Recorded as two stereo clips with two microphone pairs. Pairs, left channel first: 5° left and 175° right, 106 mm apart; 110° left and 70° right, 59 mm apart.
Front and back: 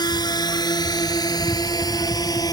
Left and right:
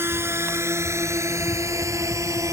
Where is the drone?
35° right; by 2.5 s 45° right.